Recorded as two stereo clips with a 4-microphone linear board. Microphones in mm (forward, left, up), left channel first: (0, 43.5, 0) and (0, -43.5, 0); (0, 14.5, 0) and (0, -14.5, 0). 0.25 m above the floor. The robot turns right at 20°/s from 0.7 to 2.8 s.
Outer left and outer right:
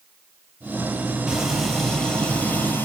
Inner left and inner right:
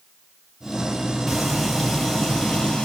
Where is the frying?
5° right, 4.5 m; by 2.9 s 25° left, 4.5 m.